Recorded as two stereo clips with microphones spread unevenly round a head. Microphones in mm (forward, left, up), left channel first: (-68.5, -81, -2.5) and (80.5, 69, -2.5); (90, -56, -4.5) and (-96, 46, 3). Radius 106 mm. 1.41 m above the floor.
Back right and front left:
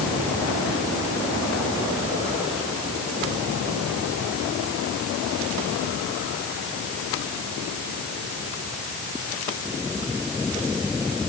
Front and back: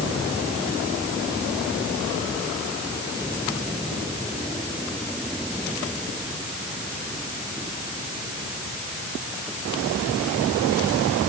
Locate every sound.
Only background noise.